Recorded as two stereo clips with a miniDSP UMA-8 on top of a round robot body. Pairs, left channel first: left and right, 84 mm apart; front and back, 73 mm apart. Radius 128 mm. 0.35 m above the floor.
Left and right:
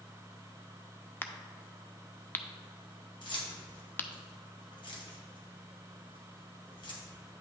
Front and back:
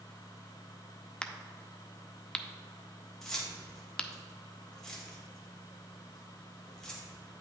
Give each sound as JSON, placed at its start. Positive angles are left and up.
{"t": 1.2, "sound": "a crack", "azimuth_deg": 60, "distance_m": 0.7}
{"t": 3.2, "sound": "keys jangling", "azimuth_deg": 85, "distance_m": 1.8}